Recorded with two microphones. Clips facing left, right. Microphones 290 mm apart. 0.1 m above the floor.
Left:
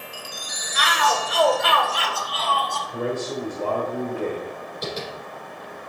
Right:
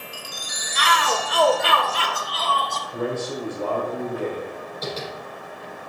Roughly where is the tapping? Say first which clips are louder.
Even; centre.